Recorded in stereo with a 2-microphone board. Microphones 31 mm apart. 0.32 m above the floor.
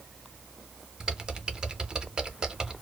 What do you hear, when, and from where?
1.0 s typing on a keyboard: 25° right (ahead or behind), 0.5 m